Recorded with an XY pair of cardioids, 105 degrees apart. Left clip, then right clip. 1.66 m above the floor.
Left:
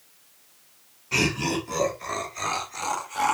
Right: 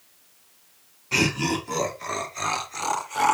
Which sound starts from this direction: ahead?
Laughter, at 1.1 s.